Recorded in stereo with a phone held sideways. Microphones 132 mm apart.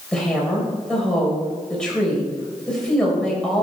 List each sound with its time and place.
0.1 s a woman speaking: 5° left (ahead or behind), 4 m